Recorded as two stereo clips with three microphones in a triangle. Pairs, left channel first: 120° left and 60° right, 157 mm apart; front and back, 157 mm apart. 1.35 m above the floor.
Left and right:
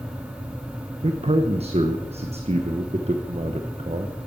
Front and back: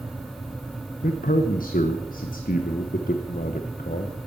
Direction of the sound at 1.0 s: 15° right.